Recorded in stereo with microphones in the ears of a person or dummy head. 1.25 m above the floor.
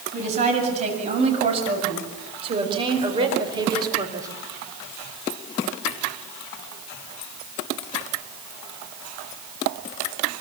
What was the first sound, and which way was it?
A woman speaking, 40° right (ahead or behind).